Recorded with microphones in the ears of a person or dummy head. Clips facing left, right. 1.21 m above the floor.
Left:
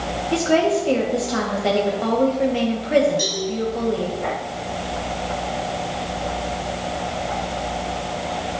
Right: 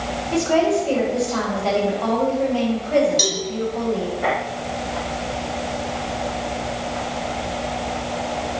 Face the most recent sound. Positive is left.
turn(degrees=-80)